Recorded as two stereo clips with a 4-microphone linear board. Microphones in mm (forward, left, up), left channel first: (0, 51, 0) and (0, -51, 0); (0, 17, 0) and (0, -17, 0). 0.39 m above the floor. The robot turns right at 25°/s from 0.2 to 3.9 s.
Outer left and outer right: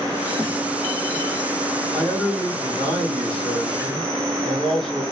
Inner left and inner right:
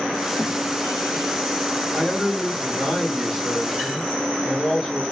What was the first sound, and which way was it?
A man speaking, 20° left (ahead or behind).